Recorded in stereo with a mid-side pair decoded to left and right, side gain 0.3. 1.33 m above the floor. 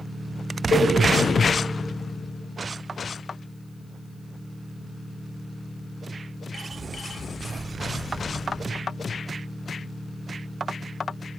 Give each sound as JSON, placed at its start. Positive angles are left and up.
{"t": 0.7, "sound": "a cowbell", "azimuth_deg": 65, "distance_m": 6.5}